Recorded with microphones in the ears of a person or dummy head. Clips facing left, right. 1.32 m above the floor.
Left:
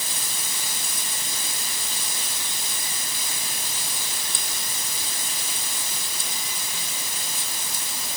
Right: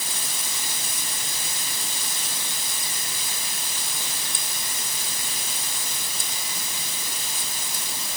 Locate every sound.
Only background noise.